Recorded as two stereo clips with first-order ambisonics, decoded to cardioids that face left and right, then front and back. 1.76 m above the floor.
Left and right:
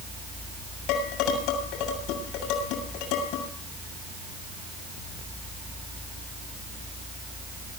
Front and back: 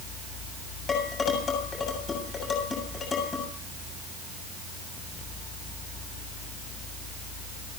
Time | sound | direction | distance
0.9 | dishes clattering | 70° left | 8 m